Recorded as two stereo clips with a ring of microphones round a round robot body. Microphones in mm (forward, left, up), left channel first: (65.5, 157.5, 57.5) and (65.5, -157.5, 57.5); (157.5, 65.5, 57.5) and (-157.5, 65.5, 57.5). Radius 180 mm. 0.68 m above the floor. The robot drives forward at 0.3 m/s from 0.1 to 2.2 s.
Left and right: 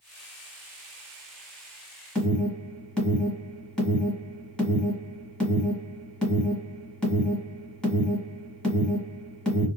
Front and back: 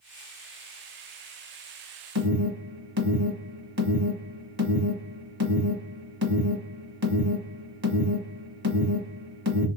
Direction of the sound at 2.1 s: 175° left.